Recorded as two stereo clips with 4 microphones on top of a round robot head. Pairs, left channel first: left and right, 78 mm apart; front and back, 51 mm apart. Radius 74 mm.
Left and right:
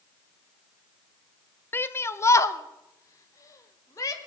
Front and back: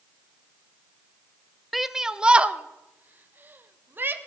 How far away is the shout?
About 0.7 m.